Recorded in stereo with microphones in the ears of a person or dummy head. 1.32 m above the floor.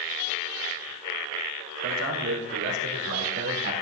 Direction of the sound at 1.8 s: 75° right (ahead or behind).